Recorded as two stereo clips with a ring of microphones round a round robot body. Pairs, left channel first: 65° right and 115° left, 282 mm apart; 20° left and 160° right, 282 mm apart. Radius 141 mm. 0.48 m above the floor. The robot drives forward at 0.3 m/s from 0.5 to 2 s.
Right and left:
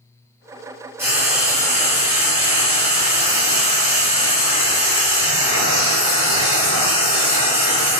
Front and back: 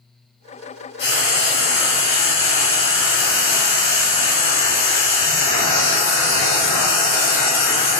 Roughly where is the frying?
Ahead left.